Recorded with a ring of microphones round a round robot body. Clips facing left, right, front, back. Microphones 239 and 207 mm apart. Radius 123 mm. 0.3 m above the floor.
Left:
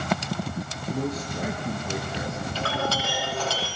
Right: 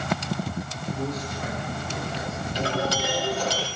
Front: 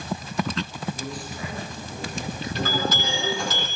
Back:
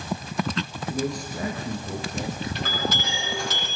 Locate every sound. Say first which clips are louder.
0.9 s a man speaking: left 2 dB, back 5 dB; 135° left, 6 m
2.5 s a clink: right 4 dB, front 3 dB; 15° right, 9 m